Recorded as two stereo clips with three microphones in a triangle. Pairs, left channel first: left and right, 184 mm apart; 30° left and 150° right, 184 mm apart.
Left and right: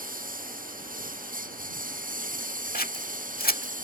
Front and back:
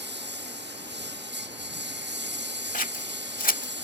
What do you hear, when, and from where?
0.0 s a lawn mower: 130° right; by 3.8 s 135° right
2.7 s scissors: 65° left